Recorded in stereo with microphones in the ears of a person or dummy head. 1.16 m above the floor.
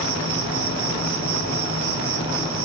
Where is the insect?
70° right (ahead or behind), 2 m.